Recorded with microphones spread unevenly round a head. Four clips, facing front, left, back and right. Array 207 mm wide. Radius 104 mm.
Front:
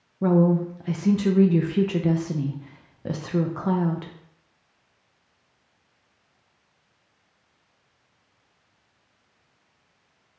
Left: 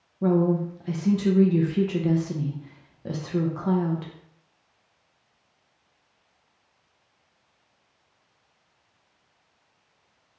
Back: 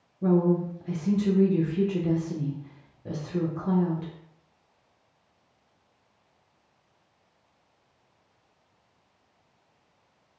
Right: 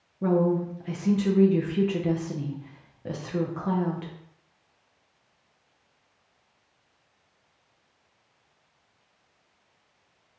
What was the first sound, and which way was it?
A woman speaking, 20° left.